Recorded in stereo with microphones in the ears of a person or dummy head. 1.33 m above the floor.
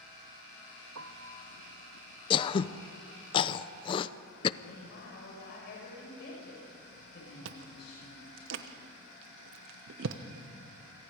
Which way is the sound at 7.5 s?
60° right (ahead or behind).